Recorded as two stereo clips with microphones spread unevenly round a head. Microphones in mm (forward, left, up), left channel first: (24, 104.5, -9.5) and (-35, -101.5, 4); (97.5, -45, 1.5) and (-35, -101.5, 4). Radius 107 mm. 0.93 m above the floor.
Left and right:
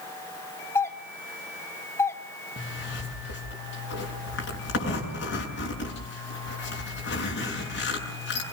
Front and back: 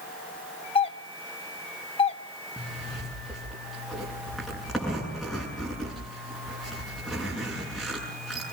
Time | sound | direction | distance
0.8 | a doorbell | 5° left | 1.2 m
2.6 | a zipper | 110° left | 8 m